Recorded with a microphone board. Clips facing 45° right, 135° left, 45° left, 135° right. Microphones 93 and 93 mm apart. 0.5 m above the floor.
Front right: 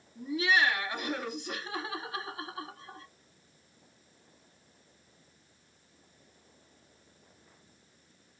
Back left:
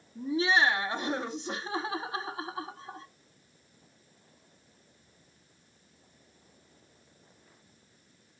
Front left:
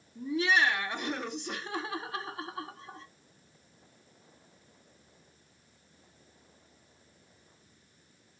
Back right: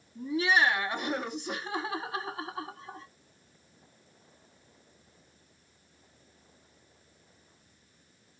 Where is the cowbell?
I don't hear a cowbell.